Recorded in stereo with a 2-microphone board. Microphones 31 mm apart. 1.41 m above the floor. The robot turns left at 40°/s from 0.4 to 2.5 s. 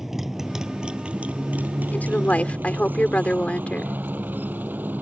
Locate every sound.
0.0 s a motorcycle: 15° right (ahead or behind); by 5.0 s 75° right (ahead or behind)
1.9 s a woman speaking: 70° left (ahead or behind); by 4.0 s 45° left (ahead or behind)